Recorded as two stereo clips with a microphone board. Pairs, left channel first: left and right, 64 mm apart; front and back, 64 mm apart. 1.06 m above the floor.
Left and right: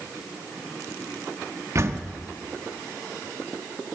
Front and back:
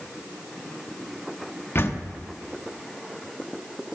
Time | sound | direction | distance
1.8 | a door slam | 50° right | 1.3 m